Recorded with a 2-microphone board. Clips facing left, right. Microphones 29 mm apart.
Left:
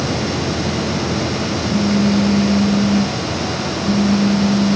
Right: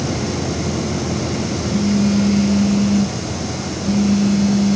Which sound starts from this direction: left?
A phone buzzing, at 1.7 s.